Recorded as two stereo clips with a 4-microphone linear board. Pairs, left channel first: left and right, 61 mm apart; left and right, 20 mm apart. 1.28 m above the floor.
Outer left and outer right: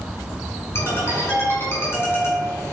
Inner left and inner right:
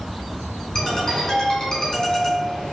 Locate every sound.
0.8 s a ringtone: 35° left (ahead or behind), 4 m